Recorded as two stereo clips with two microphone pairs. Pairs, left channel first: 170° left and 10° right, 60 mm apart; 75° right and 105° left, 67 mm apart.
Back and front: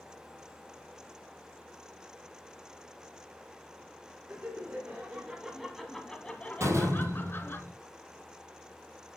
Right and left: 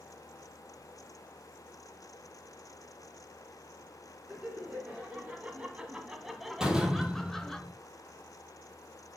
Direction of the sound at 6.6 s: 25° left.